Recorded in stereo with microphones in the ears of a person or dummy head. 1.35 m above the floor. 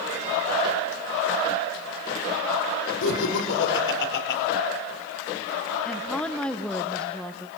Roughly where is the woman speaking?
Centre.